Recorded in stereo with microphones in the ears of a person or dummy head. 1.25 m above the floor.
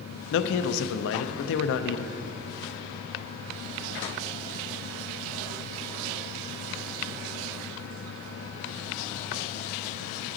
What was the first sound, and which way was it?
A man speaking, 75° left (ahead or behind).